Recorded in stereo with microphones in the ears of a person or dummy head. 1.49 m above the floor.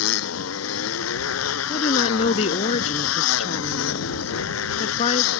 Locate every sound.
0.0 s a motorcycle: 85° left
1.7 s a woman speaking: 30° left (ahead or behind)